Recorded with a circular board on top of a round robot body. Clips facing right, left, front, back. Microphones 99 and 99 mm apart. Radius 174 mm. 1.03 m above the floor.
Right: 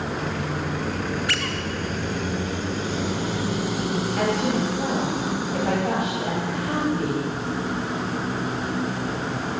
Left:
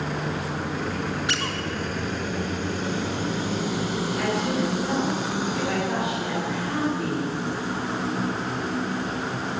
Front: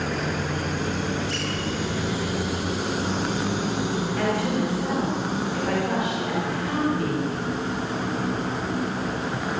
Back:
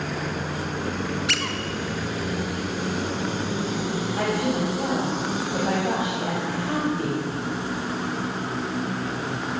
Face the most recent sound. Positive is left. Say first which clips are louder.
# right 2 dB, back 1 dB
turn(degrees=-120)